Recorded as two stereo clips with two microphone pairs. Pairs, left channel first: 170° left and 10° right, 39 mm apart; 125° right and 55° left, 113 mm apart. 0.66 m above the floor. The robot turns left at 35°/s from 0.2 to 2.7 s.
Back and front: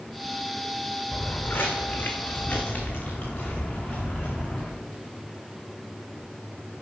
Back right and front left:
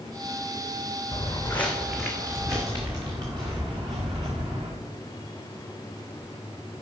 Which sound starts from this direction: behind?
Footsteps, at 1.1 s.